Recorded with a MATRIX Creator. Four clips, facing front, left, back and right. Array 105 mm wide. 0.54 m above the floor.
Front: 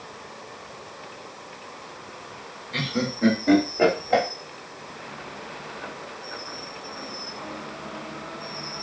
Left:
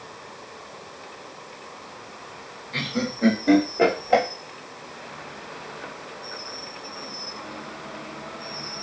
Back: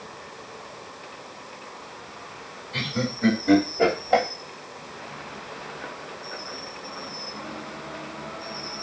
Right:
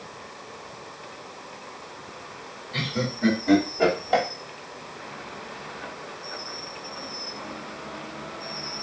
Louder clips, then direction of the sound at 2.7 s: Left 1 dB, front 1 dB; 35° left.